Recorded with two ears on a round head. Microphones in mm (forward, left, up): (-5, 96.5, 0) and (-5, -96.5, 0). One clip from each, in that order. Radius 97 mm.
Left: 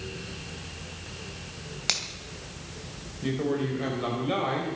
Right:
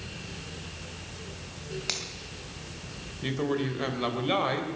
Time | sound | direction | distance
1.9 | a finger snap | 15° left (ahead or behind) | 2.5 m
3.2 | a man speaking | 40° right (ahead or behind) | 3 m